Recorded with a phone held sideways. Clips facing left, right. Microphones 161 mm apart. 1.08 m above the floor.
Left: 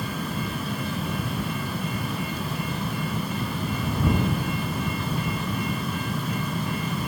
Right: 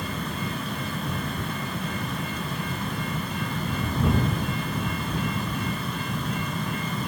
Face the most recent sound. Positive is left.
turn(degrees=5)  # may be behind; listen again after turning